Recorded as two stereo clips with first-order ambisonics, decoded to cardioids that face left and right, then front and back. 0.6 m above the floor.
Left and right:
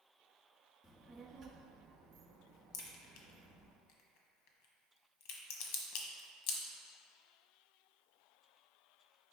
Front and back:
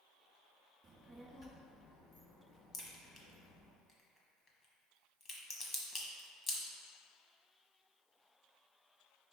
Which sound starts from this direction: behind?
A child speaking, at 0.8 s.